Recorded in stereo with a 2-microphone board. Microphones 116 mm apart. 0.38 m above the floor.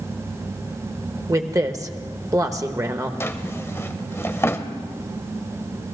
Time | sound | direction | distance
1.3 | a woman speaking | 30° right (ahead or behind) | 0.9 m
3.2 | a drawer | 25° left (ahead or behind) | 0.7 m